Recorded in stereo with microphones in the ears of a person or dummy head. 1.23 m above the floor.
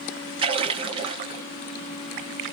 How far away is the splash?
About 0.7 m.